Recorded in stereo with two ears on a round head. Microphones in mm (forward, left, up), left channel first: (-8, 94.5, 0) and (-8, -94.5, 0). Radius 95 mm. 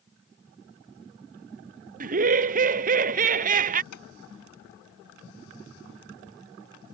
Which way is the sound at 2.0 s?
40° right (ahead or behind).